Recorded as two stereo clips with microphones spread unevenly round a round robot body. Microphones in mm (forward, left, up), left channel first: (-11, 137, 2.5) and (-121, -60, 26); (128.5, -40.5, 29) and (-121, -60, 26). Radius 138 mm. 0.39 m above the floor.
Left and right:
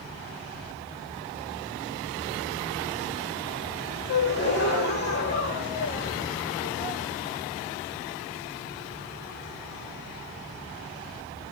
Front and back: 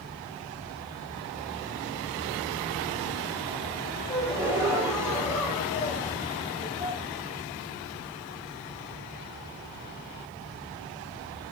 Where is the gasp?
105° left, 4 m.